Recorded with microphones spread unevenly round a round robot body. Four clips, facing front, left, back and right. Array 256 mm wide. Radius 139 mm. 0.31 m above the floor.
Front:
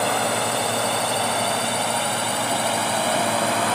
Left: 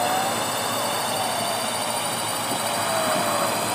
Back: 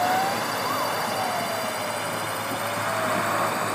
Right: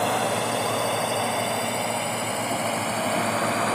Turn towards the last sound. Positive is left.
turn(degrees=-30)